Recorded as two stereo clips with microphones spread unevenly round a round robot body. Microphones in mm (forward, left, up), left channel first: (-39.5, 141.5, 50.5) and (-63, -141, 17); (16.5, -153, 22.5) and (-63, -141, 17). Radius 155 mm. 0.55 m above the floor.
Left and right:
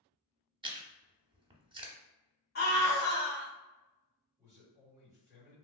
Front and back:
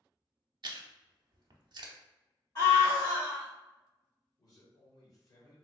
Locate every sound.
0.6 s chewing: 170° right, 0.6 m
2.5 s a scream: 30° left, 1.4 m
4.4 s a man speaking: 25° right, 1.8 m